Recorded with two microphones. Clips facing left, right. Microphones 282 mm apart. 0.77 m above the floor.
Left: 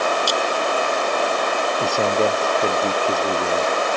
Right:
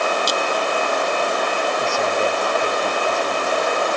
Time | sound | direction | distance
0.3 | a clink | 20° right (ahead or behind) | ?
1.8 | a man speaking | 45° left (ahead or behind) | ?